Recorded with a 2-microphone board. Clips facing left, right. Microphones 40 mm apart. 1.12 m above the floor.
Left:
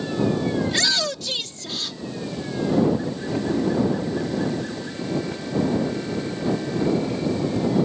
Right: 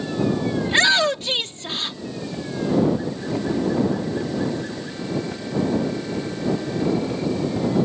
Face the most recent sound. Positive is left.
turn(degrees=-35)  # may be behind; listen again after turning